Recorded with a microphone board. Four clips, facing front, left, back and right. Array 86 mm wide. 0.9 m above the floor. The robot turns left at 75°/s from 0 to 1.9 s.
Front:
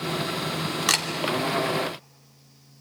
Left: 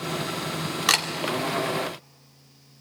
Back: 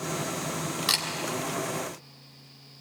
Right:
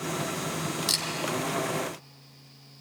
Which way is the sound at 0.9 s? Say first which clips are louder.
Left 10 dB, front 8 dB; 70° left.